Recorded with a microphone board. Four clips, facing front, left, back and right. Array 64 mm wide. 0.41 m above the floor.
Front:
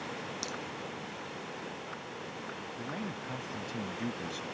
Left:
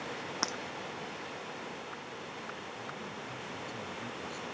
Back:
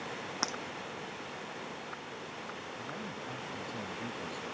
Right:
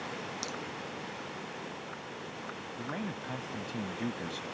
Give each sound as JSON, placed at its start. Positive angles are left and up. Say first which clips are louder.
{"t": 0.4, "sound": "breaking glass", "louder": "left 3 dB, back 3 dB", "azimuth_deg": 135}
{"t": 2.8, "sound": "a man speaking", "louder": "right 4 dB, front 2 dB", "azimuth_deg": -65}